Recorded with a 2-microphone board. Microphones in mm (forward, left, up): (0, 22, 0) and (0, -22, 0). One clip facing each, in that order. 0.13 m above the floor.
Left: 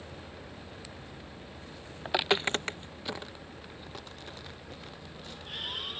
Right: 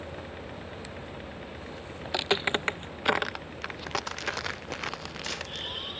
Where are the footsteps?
15° left (ahead or behind); by 5.7 s 75° right (ahead or behind).